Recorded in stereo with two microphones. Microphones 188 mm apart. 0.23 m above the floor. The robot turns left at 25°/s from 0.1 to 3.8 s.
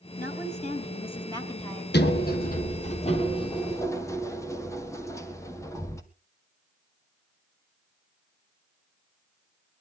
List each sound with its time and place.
0.2 s a woman speaking: 60° left, 2.5 m; by 1.8 s 15° left, 2.5 m
1.9 s a sliding door: 60° left (ahead or behind), 1.6 m; by 6.0 s 15° left (ahead or behind), 1.6 m